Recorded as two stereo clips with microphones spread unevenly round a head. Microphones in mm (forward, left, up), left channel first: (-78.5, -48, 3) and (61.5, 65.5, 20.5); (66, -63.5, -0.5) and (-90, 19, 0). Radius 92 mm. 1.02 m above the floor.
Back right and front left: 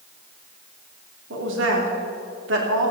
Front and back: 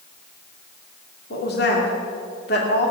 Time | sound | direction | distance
1.3 | a woman speaking | 10° left | 2.5 m